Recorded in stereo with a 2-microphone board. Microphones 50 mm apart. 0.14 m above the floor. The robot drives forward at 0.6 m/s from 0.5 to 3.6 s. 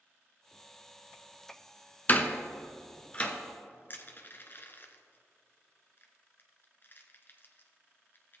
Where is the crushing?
45° left (ahead or behind), 1.1 m.